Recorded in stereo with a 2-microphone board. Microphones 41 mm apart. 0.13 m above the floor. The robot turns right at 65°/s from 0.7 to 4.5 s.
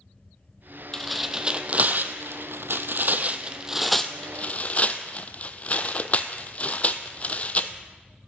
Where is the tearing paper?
10° left (ahead or behind), 0.6 m; by 7.7 s 40° left (ahead or behind), 0.6 m.